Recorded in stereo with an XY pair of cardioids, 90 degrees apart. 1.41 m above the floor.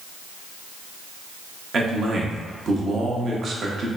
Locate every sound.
1.7 s a man speaking: 55° right, 0.7 m